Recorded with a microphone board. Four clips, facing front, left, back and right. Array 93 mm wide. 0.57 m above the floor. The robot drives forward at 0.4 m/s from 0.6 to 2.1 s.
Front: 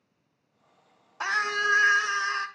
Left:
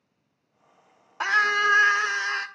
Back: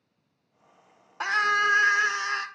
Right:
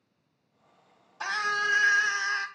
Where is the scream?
110° left, 1.5 m; by 2.5 s 125° left, 1.7 m.